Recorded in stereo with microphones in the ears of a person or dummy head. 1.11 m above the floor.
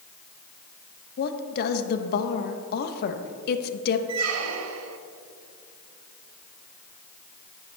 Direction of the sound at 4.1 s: 80° right.